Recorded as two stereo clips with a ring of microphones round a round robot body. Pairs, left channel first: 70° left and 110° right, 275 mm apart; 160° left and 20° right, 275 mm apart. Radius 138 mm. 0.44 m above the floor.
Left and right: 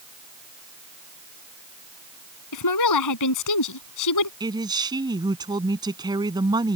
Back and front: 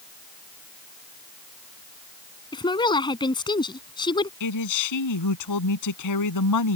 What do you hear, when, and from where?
2.5 s a woman speaking: 85° left
4.4 s a man speaking: 175° left